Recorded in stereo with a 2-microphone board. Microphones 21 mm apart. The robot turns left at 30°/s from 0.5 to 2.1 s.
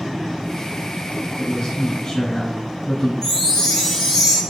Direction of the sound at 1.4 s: 45° left (ahead or behind).